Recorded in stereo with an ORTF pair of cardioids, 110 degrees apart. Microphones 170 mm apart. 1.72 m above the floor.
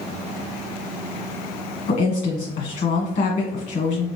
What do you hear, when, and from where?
1.9 s a woman speaking: 50° left, 1.4 m